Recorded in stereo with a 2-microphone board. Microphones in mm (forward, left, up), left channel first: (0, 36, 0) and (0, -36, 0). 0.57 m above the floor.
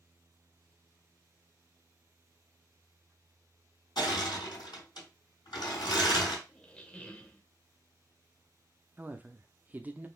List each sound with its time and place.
4.0 s crushing: 75° left (ahead or behind), 3.5 m
6.5 s a squeak: 15° left (ahead or behind), 0.7 m
9.0 s a woman speaking: 25° right (ahead or behind), 0.6 m